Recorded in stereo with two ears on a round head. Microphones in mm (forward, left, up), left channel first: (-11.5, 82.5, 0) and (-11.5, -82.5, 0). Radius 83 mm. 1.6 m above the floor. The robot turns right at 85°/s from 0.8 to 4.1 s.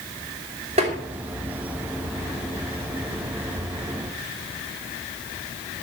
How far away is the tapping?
About 3 m.